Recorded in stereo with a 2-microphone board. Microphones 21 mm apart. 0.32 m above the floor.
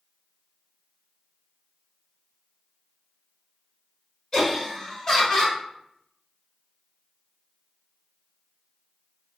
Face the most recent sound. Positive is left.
turn(degrees=30)  # may be behind; listen again after turning